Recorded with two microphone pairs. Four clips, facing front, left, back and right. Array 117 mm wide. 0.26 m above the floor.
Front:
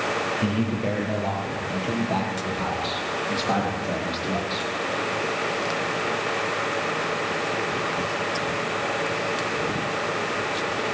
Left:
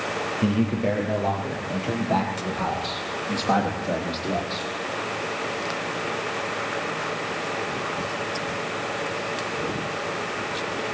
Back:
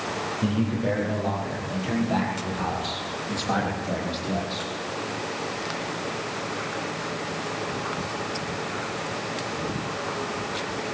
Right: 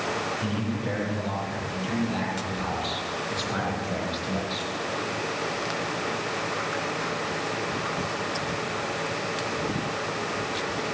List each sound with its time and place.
0.4 s a man speaking: 70° left, 6.5 m; by 4.7 s 75° left, 9.5 m